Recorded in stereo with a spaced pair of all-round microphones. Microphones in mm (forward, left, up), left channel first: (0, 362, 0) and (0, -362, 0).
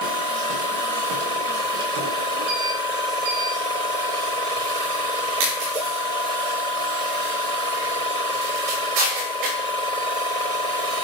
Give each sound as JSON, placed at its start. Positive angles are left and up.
{"t": 0.0, "sound": "a machine running", "side_deg": 65}